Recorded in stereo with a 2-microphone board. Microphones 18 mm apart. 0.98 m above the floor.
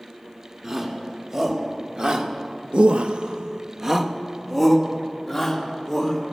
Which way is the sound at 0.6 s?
35° right (ahead or behind).